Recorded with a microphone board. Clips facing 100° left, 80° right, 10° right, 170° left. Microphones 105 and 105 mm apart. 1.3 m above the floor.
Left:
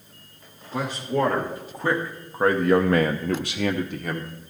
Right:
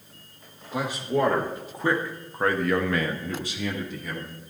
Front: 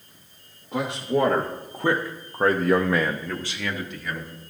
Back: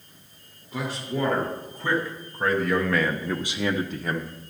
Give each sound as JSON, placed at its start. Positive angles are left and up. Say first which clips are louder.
{"t": 0.7, "sound": "a man speaking", "louder": "even, front 6 dB", "azimuth_deg": -5, "distance_m": 1.6}